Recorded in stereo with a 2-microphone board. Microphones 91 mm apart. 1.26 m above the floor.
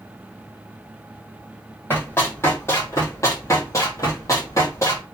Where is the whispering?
No whispering in this recording.